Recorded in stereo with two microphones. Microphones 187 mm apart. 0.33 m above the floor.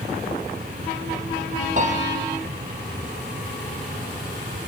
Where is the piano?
40° right (ahead or behind), 4.5 m.